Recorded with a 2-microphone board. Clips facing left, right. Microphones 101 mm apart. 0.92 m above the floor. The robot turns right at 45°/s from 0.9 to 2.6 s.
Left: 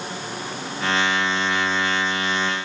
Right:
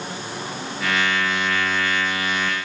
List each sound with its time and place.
Only background noise.